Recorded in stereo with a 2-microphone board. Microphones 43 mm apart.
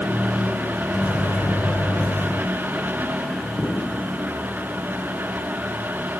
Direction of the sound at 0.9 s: 80° left.